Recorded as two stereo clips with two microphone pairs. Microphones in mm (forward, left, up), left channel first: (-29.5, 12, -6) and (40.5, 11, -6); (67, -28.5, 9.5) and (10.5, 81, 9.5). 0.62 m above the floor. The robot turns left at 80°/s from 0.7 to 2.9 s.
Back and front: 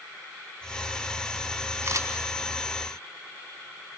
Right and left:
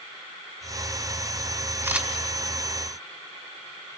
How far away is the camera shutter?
About 1.9 m.